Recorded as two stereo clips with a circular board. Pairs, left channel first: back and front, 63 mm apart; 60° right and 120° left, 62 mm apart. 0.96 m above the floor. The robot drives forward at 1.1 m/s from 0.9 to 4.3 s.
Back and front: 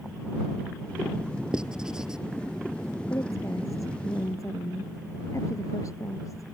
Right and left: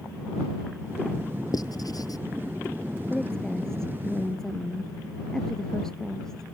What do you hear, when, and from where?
1.5 s writing: 80° right
3.1 s a woman speaking: 140° right; by 6.4 s 145° right